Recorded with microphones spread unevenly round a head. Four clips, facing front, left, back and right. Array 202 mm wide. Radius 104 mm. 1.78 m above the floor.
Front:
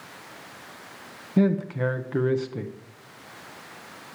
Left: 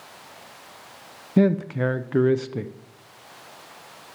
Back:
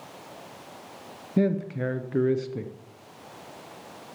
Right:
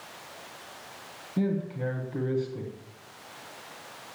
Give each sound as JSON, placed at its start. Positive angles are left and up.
{"t": 1.4, "sound": "a man speaking", "azimuth_deg": 110, "distance_m": 0.7}